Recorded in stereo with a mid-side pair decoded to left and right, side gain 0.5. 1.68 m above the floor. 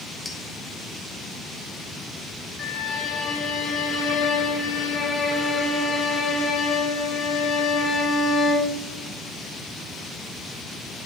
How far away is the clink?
About 2.5 m.